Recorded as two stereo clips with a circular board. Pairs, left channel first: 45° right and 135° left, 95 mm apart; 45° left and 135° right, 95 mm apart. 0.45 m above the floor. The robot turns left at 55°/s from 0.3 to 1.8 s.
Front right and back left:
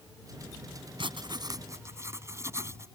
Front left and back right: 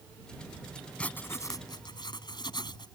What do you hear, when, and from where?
1.0 s writing: 120° left; by 2.9 s 80° left